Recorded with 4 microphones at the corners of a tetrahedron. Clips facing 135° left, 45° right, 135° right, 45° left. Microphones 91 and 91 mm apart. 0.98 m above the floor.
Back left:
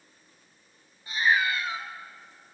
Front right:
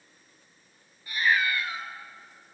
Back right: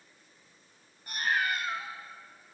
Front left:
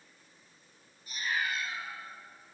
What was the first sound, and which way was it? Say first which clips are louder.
A cat meowing: back left 1 dB, back right 4 dB; 155° right.